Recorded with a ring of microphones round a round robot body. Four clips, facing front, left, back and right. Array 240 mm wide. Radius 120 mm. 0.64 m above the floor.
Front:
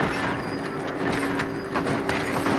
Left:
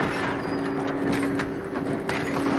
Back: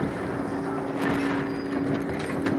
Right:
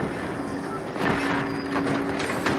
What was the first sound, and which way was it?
Only background noise.